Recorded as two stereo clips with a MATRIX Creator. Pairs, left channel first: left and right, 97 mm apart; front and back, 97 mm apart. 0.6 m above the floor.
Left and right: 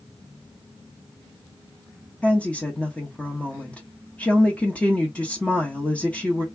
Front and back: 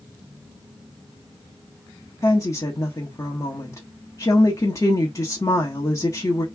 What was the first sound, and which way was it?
A woman speaking, 20° left.